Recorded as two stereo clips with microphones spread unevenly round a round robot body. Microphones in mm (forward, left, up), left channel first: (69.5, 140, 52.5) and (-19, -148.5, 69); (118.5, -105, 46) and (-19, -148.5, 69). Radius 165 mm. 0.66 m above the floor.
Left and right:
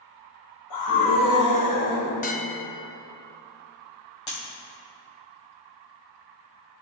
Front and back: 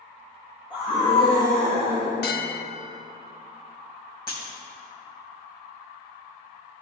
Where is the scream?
85° left, 2.5 m; by 2.1 s 100° left, 3 m.